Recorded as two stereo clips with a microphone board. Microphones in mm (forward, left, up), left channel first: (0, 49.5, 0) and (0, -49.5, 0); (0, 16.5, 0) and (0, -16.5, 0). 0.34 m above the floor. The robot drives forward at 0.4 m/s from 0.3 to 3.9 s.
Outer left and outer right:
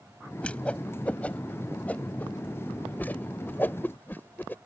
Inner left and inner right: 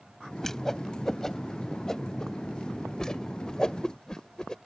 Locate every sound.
0.4 s a whoosh: 15° left (ahead or behind); by 4.6 s 20° left (ahead or behind)